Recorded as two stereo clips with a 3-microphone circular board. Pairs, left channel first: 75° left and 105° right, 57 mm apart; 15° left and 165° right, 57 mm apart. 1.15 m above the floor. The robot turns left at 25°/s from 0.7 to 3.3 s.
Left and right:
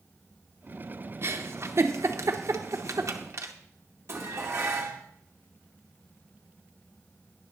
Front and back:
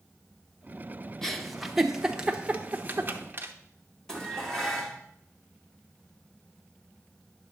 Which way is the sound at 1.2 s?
70° right.